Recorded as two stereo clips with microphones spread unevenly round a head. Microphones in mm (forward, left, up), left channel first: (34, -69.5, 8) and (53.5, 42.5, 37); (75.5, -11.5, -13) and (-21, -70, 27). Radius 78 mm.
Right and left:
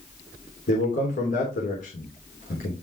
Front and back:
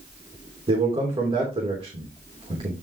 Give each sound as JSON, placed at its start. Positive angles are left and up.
{"t": 0.7, "sound": "a man speaking", "azimuth_deg": -110, "distance_m": 3.0}